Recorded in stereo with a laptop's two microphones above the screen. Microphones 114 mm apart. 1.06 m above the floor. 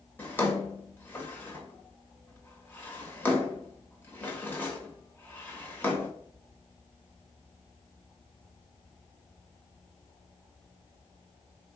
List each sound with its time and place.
0.2 s a drawer: 15° left (ahead or behind), 0.8 m